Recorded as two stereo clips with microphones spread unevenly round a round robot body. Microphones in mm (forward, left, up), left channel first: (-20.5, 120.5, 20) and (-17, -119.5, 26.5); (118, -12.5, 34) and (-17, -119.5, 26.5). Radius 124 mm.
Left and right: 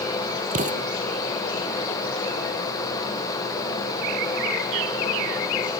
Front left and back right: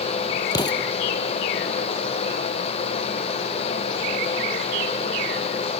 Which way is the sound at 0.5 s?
30° right.